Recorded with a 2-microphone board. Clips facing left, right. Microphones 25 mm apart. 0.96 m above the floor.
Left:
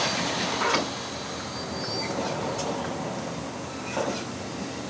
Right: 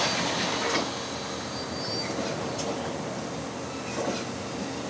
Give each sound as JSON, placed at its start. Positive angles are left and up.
{"t": 0.5, "sound": "a sliding door", "side_deg": 65, "distance_m": 4.0}